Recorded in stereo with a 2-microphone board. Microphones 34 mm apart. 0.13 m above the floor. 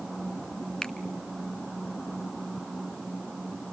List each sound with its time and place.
0.8 s a finger snap: 20° left (ahead or behind), 0.9 m